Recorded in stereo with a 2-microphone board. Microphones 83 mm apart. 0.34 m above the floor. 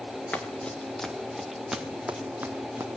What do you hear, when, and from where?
0.3 s running footsteps: 20° left (ahead or behind), 3 m; by 2.9 s 30° right (ahead or behind), 3 m